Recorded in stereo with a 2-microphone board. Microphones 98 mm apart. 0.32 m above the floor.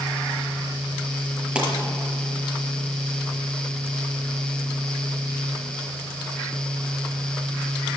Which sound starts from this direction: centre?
A pop, at 1.6 s.